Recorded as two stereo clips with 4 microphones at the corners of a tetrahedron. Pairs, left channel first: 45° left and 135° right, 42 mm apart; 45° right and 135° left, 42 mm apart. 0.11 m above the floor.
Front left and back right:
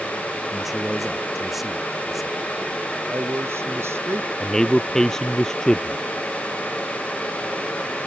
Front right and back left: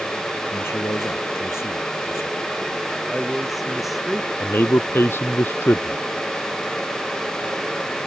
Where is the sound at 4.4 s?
30° right.